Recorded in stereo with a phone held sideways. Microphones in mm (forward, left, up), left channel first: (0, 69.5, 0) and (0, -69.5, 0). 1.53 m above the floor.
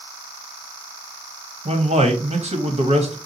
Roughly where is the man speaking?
Right.